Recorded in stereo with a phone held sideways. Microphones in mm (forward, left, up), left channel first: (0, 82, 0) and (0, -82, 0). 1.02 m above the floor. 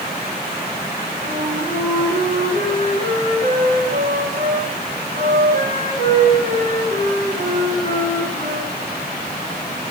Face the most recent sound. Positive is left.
turn(degrees=-75)  # may be behind; listen again after turning